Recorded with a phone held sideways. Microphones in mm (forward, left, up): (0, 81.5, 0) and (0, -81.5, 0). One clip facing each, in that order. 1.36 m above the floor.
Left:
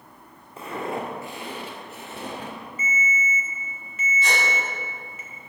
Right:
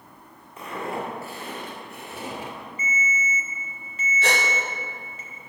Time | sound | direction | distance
0.6 | footsteps | 30° left (ahead or behind) | 2.0 m
2.8 | a ringtone | 35° right (ahead or behind) | 1.9 m
4.2 | a gasp | 90° right | 1.8 m